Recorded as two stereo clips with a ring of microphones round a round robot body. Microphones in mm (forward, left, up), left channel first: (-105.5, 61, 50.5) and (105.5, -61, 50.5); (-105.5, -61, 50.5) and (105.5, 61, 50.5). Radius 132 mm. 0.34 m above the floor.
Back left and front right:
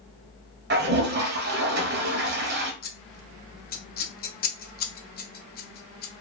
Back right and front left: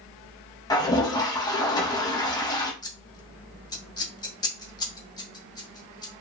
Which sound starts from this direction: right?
A toilet flushing, at 0.7 s.